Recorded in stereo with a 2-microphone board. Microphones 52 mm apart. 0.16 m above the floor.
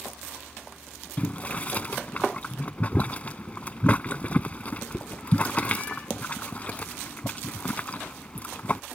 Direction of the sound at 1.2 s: 30° left (ahead or behind).